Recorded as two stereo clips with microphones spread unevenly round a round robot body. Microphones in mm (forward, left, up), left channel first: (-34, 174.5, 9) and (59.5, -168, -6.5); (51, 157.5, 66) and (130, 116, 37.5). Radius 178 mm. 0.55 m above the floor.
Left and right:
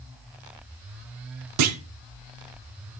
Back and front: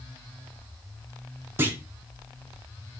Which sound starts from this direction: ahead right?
A clunk, at 1.6 s.